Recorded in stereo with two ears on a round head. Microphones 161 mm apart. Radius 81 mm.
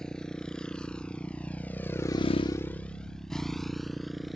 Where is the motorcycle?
5° left (ahead or behind); by 4.4 s centre (ahead or behind).